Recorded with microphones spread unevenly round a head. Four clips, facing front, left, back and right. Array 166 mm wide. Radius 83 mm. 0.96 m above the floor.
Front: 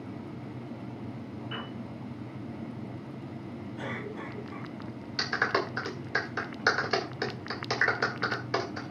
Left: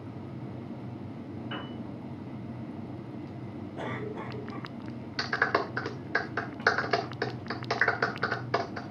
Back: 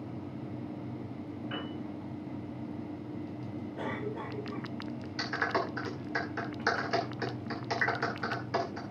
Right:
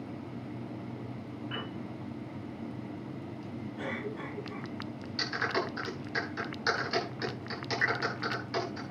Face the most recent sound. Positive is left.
turn(degrees=55)